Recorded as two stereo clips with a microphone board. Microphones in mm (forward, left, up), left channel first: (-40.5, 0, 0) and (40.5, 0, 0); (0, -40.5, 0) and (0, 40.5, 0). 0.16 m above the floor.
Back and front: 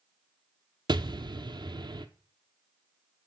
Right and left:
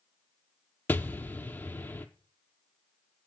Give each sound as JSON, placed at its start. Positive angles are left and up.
{"t": 0.9, "sound": "an explosion", "azimuth_deg": -20, "distance_m": 0.9}